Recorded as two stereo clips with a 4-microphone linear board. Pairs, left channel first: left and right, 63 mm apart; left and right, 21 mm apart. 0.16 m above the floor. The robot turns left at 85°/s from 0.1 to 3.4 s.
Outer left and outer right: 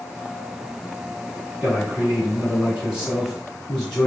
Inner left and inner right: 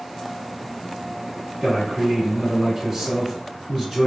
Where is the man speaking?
15° right (ahead or behind), 1.8 m; by 4.1 s 5° left (ahead or behind), 1.8 m.